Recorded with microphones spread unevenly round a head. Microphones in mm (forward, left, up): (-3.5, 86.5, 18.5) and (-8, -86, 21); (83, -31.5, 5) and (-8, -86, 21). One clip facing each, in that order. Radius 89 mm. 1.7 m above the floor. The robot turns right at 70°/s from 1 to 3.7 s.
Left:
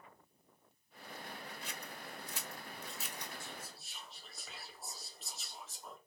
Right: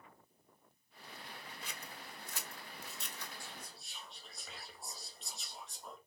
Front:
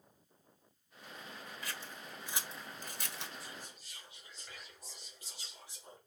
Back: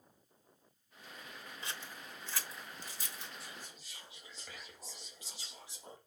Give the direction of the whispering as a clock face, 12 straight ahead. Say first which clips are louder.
Left 2 dB, front 1 dB; 7 o'clock.